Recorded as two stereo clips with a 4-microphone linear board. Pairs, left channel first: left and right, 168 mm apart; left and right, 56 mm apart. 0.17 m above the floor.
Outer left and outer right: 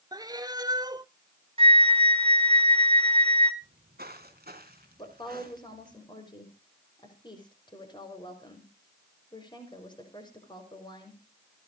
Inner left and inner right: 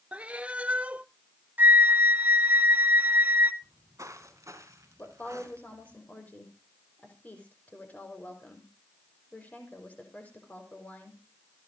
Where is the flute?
35° right (ahead or behind), 0.9 m.